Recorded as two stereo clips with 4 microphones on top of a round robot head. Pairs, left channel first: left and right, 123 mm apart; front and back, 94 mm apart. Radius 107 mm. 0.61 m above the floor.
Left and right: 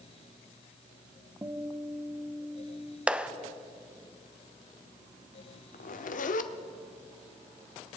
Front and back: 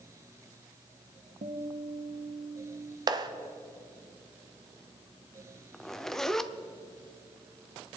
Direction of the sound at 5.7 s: 85° left.